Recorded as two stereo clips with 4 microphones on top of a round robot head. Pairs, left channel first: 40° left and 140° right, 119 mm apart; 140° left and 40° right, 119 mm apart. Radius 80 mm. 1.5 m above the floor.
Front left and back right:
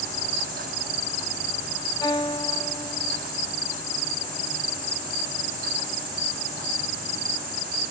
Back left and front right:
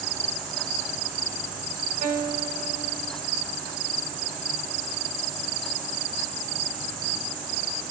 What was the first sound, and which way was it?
A guitar, 20° right.